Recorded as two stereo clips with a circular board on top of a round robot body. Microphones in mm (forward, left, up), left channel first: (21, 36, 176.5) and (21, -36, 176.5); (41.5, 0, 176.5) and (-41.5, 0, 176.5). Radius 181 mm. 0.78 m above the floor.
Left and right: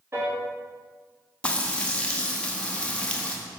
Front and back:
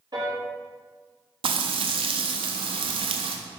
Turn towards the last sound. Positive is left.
turn(degrees=165)